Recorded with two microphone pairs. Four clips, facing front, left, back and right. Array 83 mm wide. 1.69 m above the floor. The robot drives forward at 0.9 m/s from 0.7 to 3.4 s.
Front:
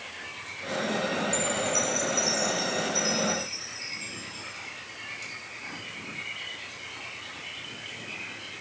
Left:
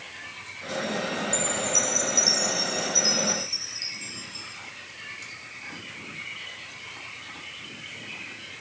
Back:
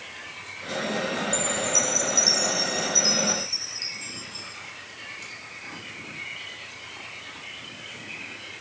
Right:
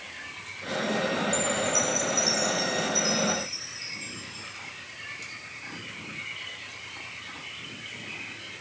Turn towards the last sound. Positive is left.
turn(degrees=125)